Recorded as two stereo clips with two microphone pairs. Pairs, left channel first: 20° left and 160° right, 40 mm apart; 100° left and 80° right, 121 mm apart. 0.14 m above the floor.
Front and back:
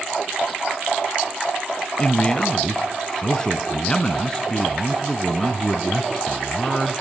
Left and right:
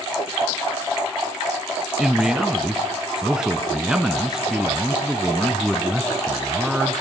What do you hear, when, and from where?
2.0 s a man speaking: 10° right, 1.1 m